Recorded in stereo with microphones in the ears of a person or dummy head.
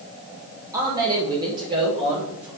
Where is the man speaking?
20° right (ahead or behind), 0.6 m; by 2.5 s 25° right (ahead or behind), 1.7 m.